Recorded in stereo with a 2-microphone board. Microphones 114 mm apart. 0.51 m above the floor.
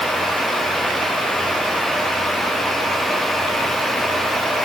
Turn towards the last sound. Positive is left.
No sound to turn to.